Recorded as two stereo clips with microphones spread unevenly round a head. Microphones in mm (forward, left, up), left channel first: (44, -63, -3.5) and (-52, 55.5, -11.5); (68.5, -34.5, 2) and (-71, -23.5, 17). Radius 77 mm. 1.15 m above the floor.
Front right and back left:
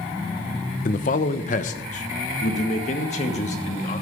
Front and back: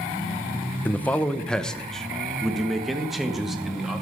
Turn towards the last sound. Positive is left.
turn(degrees=-95)